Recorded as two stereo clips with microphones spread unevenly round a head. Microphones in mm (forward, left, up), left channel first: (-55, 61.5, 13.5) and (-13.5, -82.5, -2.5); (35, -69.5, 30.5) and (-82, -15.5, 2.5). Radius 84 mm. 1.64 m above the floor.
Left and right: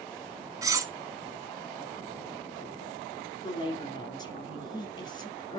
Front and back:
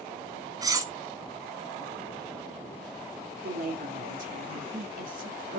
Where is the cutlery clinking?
140° right, 1.3 m.